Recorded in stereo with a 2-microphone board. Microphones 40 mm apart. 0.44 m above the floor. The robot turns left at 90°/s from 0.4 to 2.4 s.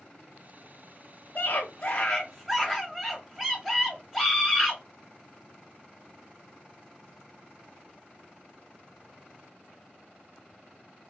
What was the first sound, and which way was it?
A scream, 105° left.